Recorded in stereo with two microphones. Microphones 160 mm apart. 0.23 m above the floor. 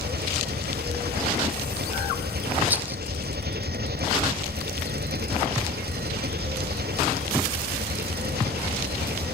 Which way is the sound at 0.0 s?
90° right.